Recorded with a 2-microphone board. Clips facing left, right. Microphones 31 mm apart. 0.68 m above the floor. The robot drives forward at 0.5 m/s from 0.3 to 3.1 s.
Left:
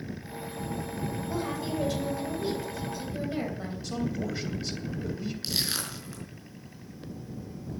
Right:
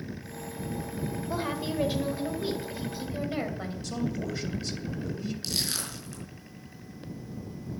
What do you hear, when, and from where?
1.3 s a woman speaking: 25° right (ahead or behind), 2.5 m; by 3.7 s 20° right (ahead or behind), 3 m
3.8 s a man speaking: 5° left (ahead or behind), 3 m
5.4 s crushing: 20° left (ahead or behind), 5 m